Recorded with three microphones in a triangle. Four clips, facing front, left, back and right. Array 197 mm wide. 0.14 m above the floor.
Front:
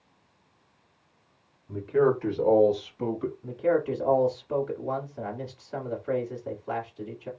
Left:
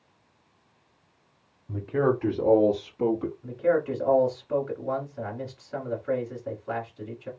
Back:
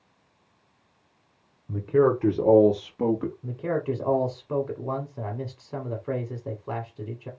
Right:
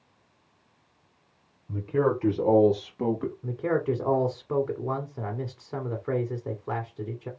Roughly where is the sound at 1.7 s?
Behind.